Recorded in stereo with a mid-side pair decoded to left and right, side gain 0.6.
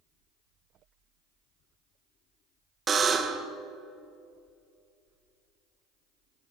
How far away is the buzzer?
About 0.6 m.